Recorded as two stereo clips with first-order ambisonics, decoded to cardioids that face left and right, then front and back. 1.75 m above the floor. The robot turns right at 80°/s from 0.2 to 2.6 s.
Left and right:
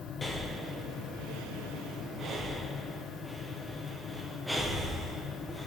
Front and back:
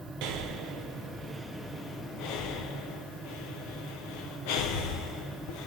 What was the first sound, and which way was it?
Breathing, 165° left.